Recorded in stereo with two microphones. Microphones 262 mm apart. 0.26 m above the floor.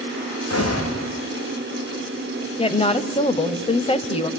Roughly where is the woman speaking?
Left.